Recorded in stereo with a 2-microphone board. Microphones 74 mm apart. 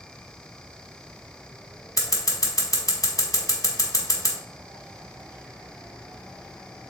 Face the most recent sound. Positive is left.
turn(degrees=50)  # may be behind; listen again after turning